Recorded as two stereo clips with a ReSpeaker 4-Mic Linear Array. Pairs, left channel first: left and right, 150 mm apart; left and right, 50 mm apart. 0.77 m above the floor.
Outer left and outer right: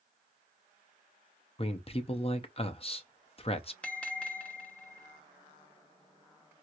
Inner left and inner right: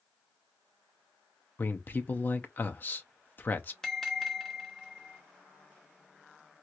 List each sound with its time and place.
1.6 s a man speaking: 40° left (ahead or behind), 0.6 m
3.8 s a bell: 10° left (ahead or behind), 0.9 m